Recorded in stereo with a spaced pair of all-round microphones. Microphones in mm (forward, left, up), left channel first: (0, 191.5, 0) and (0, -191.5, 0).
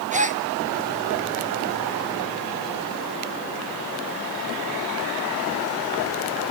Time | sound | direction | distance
0.1 | a gasp | 20° right (ahead or behind) | 1.1 m